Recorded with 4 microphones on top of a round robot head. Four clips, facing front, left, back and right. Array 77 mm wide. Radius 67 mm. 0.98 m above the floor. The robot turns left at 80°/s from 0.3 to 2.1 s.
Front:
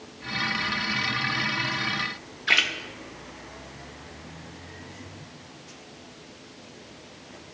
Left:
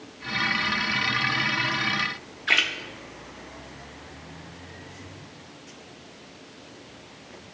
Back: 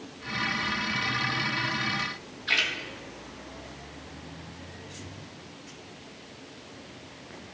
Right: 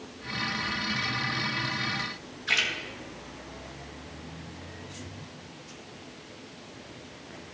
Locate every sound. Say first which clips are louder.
2.5 s a splash: left 5 dB, front 4 dB; 40° left, 1.2 m